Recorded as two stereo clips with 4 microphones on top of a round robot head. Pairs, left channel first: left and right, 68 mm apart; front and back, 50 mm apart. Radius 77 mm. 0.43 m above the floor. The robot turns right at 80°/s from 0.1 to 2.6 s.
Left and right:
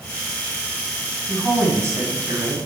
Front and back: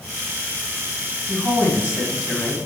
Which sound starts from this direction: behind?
A woman speaking, at 1.3 s.